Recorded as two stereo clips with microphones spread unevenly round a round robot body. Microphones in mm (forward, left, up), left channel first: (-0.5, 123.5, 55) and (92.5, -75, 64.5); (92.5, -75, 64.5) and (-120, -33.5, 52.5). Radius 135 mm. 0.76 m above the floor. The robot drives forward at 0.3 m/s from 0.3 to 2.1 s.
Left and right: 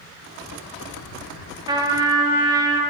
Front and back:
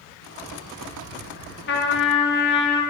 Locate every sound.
1.7 s a trumpet: 5° left, 1.6 m